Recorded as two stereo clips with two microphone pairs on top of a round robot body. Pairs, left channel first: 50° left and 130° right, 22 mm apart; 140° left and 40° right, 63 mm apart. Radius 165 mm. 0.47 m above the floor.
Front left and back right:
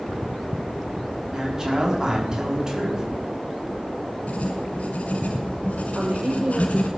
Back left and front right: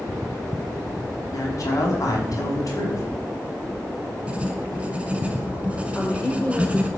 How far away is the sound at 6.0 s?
About 3 m.